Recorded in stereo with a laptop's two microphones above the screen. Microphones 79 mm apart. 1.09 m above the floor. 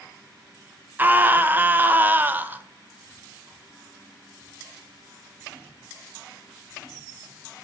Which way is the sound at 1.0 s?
25° right (ahead or behind).